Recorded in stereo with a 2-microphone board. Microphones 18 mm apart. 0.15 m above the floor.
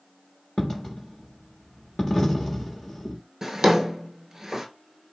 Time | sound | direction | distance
0.6 | a dropped coin | 30° left (ahead or behind) | 1.1 m
3.4 | a drawer | 30° right (ahead or behind) | 0.5 m